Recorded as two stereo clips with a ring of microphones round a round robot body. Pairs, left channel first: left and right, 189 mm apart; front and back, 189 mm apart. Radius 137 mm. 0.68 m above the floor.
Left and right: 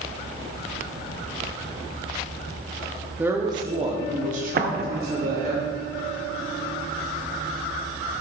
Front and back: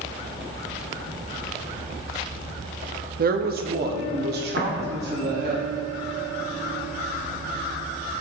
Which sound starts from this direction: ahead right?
An explosion, at 4.6 s.